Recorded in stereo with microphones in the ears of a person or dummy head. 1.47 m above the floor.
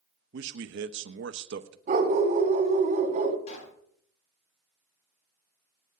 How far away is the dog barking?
About 2.5 m.